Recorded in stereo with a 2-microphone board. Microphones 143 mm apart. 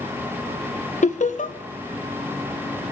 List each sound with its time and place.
1.0 s laughter: 55° left (ahead or behind), 1.5 m